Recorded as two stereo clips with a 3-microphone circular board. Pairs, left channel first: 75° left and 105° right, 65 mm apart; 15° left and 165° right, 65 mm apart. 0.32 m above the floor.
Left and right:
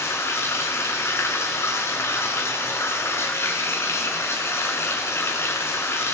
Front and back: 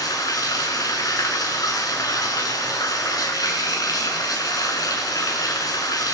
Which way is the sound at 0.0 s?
30° left.